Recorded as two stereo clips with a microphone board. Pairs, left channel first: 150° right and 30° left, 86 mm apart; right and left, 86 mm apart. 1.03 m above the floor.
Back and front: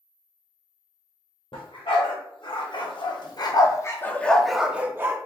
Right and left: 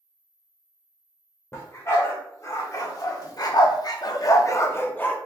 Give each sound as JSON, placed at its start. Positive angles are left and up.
{"t": 1.5, "sound": "a dog barking", "azimuth_deg": -145, "distance_m": 1.5}